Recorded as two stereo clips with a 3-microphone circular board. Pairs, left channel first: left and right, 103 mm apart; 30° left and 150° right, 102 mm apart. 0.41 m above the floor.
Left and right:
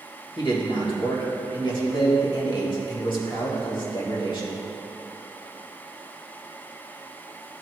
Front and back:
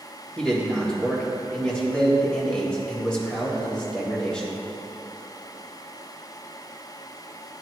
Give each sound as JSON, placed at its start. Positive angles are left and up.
{"t": 0.4, "sound": "a man speaking", "azimuth_deg": 110, "distance_m": 1.5}